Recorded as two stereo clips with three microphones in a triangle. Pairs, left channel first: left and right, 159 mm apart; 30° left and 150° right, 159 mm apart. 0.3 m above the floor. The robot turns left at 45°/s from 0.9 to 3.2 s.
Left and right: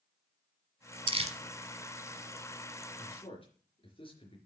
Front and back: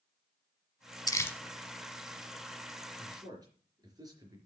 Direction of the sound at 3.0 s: 155° left.